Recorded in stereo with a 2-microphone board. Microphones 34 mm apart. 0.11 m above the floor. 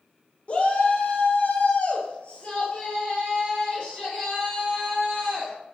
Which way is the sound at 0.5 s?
35° left (ahead or behind).